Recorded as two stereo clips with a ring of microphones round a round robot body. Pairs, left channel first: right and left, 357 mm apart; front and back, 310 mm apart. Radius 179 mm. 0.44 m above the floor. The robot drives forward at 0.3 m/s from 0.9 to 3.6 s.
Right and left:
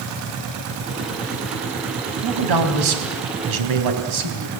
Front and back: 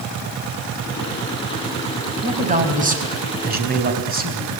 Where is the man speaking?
115° left, 4 m; by 4.6 s 120° left, 4 m.